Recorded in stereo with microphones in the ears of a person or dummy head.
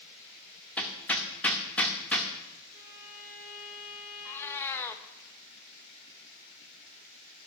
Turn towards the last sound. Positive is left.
turn(degrees=10)  # may be behind; listen again after turning